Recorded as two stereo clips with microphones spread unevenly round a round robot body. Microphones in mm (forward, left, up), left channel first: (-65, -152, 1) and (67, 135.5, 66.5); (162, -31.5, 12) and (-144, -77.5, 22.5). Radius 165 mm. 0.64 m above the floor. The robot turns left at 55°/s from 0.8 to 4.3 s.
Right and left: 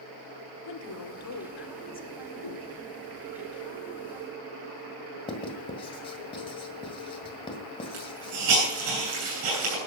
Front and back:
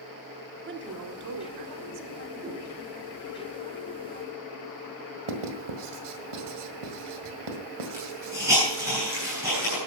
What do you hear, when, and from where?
0.6 s a woman speaking: 120° right, 1.5 m; by 3.4 s 95° left, 1.5 m
2.4 s a whoosh: 90° right, 3.5 m; by 2.6 s 105° right, 3.5 m
5.3 s writing: 170° left, 1.7 m
7.9 s a hiss: 105° left, 9 m